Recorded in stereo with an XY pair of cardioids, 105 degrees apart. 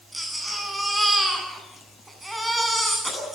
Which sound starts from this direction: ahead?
A baby crying, at 0.1 s.